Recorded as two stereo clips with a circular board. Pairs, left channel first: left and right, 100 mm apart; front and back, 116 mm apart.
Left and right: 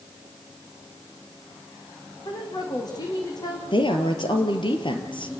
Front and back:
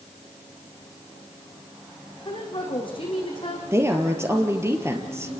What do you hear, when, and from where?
2.2 s a woman speaking: 45° left, 7 m
3.7 s a woman speaking: 115° left, 3 m